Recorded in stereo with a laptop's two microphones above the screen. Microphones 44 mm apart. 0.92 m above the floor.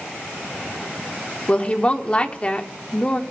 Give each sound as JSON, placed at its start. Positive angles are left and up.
{"t": 1.5, "sound": "a woman speaking", "side_deg": 30, "distance_m": 1.1}